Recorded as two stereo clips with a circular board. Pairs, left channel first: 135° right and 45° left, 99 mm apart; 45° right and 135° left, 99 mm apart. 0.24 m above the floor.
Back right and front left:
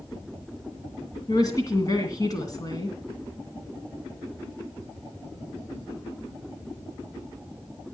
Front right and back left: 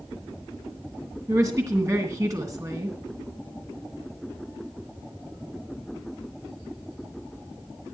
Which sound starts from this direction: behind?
A woman speaking, at 1.3 s.